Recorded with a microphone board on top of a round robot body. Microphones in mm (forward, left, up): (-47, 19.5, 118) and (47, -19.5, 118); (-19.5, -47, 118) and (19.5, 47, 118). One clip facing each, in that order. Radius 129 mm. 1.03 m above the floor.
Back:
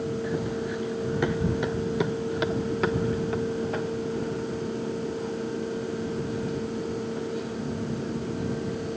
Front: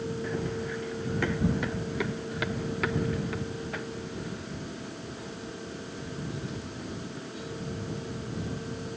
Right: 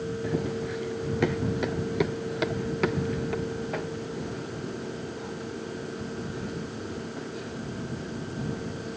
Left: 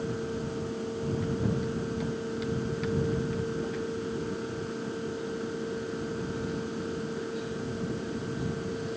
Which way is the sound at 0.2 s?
125° right.